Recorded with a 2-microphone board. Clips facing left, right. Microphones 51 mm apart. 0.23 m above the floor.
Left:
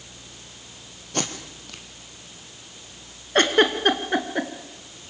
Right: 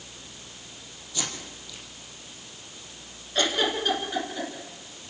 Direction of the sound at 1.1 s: 55° left (ahead or behind).